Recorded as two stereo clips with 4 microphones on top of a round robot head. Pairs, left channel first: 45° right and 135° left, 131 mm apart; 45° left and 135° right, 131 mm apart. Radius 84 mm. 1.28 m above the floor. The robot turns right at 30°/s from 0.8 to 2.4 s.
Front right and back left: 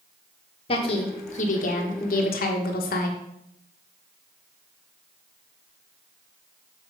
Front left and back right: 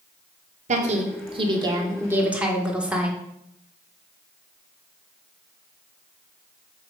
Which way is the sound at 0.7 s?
100° right.